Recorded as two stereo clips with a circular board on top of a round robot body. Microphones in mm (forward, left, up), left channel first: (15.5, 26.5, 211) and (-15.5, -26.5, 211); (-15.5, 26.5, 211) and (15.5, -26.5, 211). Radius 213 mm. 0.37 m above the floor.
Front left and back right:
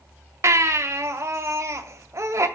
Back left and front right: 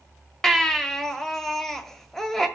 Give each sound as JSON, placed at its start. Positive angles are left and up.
{"t": 0.4, "sound": "a baby crying", "azimuth_deg": -155, "distance_m": 1.6}